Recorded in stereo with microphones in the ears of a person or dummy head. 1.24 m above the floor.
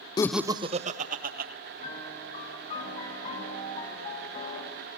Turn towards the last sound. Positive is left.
turn(degrees=40)  # may be behind; listen again after turning